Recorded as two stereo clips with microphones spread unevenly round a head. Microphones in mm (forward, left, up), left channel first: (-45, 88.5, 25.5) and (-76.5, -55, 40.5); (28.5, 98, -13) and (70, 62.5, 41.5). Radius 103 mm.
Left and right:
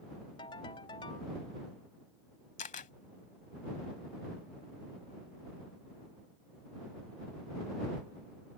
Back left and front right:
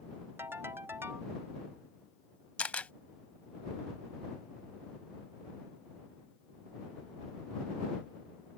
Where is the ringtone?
10° left.